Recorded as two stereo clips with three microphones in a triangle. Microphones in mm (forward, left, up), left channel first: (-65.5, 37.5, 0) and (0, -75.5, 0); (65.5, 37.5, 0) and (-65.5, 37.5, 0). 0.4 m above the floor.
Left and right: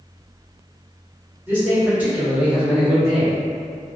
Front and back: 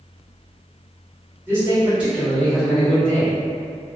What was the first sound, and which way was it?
A man speaking, 120° right.